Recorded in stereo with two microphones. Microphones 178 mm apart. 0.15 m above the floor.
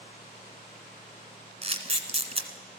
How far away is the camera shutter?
About 1.0 m.